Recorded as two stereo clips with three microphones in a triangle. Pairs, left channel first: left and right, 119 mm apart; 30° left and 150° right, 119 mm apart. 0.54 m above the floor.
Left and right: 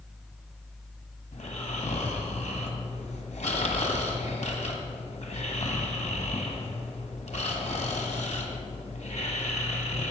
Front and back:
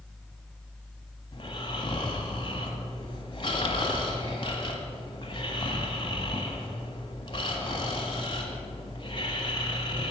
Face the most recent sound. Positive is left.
turn(degrees=75)